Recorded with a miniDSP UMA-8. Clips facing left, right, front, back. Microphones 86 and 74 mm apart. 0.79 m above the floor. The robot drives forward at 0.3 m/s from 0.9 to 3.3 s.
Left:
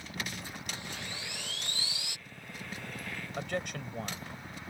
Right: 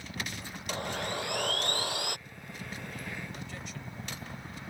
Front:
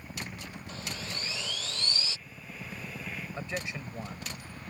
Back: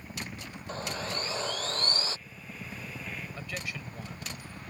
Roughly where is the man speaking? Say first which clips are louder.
Left 7 dB, front 3 dB; ahead left.